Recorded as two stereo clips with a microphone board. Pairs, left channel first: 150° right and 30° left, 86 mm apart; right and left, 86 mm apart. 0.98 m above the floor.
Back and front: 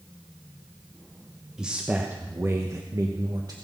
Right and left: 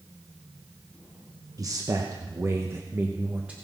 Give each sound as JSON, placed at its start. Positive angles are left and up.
{"t": 1.6, "sound": "a man speaking", "azimuth_deg": 105, "distance_m": 1.1}